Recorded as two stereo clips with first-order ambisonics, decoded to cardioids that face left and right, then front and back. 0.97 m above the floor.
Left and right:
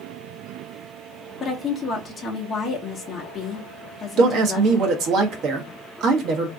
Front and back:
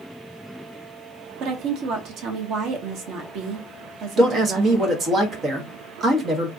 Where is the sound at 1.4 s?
160° left, 1.0 m.